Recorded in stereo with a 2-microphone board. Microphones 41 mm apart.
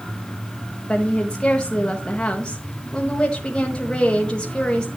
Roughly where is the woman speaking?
Left.